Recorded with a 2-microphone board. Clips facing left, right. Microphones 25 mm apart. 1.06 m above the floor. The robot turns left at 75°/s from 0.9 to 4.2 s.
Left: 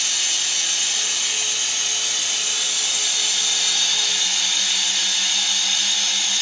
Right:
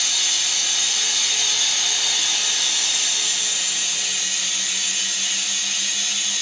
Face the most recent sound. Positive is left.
turn(degrees=105)